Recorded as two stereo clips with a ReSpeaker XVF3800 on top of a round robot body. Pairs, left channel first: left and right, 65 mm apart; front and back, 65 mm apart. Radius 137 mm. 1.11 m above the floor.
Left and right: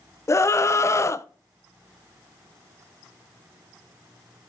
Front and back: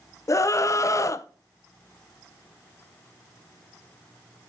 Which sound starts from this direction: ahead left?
A scream, at 0.3 s.